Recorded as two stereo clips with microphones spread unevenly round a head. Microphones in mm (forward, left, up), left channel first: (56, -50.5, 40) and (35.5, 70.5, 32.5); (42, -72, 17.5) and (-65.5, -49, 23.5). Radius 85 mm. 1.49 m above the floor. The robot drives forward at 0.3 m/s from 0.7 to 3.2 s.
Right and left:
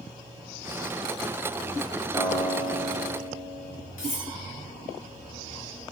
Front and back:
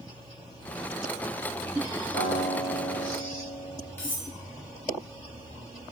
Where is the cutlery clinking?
85° right, 1.5 m.